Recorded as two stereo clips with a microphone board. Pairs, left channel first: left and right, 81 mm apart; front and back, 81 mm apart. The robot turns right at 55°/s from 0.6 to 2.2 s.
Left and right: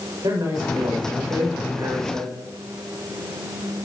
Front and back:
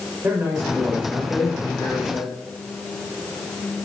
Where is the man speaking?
130° right, 7.5 m; by 2.4 s 40° right, 7.5 m.